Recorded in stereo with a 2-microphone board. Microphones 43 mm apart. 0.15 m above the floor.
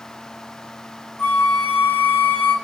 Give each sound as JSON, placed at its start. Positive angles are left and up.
{"t": 1.2, "sound": "a flute", "side_deg": 30, "distance_m": 1.5}